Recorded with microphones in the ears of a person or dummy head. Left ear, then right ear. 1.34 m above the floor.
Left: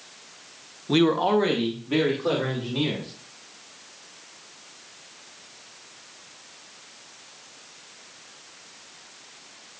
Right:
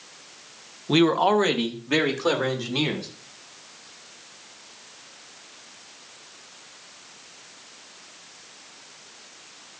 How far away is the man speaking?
About 0.8 m.